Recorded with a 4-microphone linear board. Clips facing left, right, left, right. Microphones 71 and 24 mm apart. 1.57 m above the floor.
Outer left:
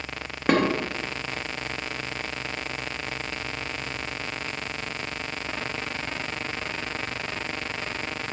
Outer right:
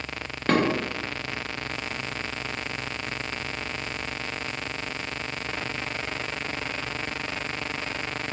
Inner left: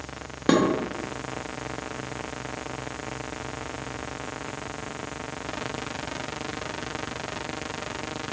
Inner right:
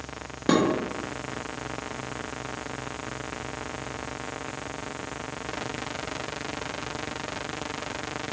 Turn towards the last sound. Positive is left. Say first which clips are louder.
# outer left 1 dB, inner left 1 dB
turn(degrees=10)  # may be behind; listen again after turning